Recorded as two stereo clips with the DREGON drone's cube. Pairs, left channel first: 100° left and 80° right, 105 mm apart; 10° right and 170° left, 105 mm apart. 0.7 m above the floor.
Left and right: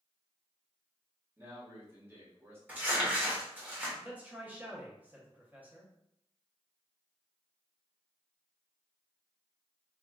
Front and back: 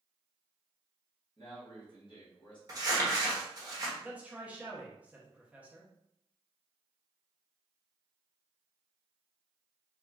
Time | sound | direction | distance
1.4 | a man speaking | 20° right | 1.1 m
2.7 | crumpling | 145° right | 0.8 m
4.0 | a man speaking | 130° right | 0.7 m